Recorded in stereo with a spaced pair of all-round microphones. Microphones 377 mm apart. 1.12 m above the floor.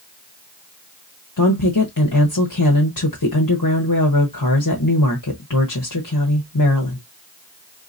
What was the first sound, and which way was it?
A woman speaking, 55° left (ahead or behind).